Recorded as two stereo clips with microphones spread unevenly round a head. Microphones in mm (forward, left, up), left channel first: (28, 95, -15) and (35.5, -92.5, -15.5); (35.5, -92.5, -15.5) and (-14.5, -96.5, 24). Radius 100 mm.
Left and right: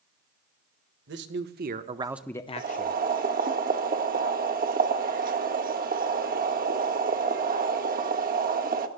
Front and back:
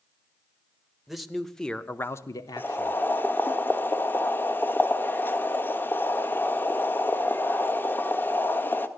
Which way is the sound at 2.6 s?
80° right.